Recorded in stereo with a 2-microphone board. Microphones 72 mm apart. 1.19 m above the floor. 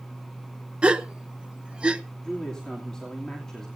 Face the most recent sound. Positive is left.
turn(degrees=10)  # may be behind; listen again after turning